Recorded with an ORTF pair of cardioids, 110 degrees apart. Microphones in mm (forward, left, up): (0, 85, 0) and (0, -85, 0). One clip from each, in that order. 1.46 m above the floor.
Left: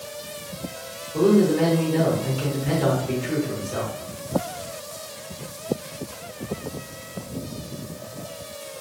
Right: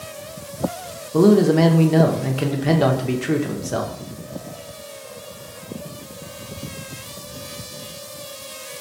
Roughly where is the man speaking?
Ahead right.